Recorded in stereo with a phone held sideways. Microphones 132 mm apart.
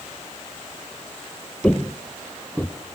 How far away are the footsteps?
About 1.3 m.